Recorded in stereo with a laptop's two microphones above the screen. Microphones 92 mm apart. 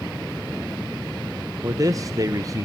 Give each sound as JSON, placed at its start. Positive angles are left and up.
{"t": 1.6, "sound": "a man speaking", "side_deg": -40, "distance_m": 0.6}